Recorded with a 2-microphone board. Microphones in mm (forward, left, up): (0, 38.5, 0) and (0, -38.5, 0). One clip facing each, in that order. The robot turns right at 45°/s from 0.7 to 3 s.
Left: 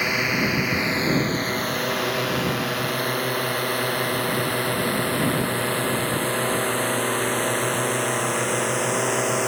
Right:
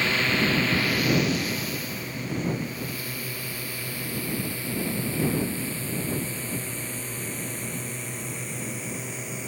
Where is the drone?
15° left (ahead or behind); by 9.5 s 75° left (ahead or behind).